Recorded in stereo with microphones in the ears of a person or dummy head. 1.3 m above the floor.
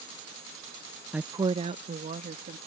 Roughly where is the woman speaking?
Centre.